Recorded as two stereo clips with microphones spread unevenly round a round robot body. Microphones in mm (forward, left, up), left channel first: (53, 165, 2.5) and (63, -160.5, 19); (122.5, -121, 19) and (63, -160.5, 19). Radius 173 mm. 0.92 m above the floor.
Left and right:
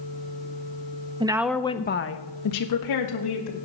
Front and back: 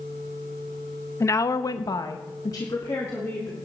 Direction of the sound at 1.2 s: 15° right.